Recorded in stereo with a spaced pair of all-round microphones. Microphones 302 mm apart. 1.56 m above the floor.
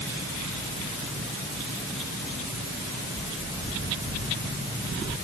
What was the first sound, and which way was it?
Only background noise.